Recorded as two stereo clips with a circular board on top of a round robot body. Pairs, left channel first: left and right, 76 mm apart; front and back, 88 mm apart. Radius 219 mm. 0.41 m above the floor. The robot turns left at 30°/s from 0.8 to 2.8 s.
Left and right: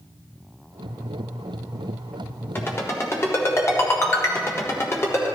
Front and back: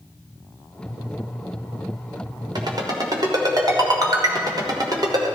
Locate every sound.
2.5 s a ringtone: 150° left, 1.5 m; by 5.3 s 140° left, 1.5 m